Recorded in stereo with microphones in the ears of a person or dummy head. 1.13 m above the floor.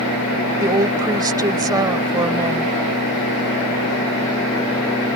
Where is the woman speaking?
20° right (ahead or behind).